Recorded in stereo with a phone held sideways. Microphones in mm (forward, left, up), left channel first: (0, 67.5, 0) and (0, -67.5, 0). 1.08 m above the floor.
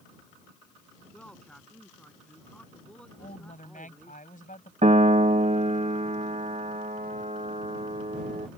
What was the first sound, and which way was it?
A man speaking, 10° left (ahead or behind).